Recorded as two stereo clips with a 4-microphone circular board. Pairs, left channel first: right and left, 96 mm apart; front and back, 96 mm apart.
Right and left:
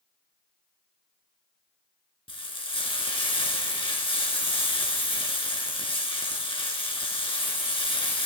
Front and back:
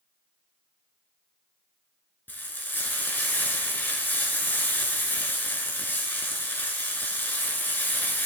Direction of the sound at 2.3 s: 70° right.